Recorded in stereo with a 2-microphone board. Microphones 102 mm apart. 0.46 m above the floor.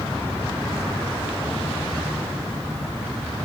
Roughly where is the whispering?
No whispering in this recording.